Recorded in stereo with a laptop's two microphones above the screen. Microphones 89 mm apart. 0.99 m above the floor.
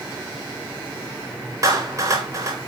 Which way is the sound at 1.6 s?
40° right (ahead or behind).